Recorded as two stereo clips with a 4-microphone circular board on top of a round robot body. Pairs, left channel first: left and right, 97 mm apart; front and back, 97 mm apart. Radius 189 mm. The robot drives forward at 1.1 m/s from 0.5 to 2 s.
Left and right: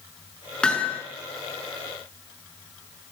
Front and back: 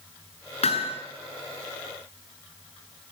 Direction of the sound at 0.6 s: 10° left.